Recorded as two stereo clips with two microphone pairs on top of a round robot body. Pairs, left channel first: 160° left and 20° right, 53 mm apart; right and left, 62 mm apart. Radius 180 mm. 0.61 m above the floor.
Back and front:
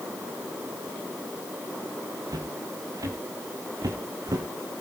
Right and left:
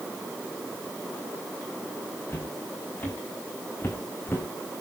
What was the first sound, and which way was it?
Footsteps, 25° right.